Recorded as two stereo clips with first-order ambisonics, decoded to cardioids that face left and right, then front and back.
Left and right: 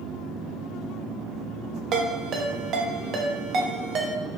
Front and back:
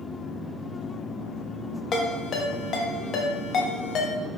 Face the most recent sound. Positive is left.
turn(degrees=-45)